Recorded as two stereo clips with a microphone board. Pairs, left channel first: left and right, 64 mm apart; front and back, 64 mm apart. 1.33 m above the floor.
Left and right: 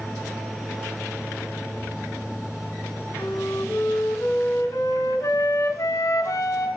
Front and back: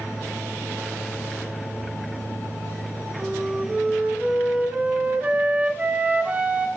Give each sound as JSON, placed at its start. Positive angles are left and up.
{"t": 3.2, "sound": "a flute", "azimuth_deg": 115, "distance_m": 4.0}